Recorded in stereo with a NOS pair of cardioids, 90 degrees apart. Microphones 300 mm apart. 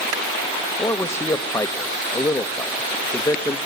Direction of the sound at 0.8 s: 10° left.